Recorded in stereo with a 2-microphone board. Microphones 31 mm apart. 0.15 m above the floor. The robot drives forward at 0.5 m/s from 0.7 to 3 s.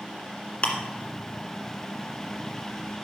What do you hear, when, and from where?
0.6 s ticking: 35° left (ahead or behind), 1.8 m